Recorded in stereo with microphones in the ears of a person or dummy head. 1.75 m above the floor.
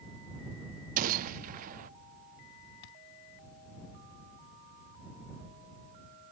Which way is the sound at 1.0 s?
45° right (ahead or behind).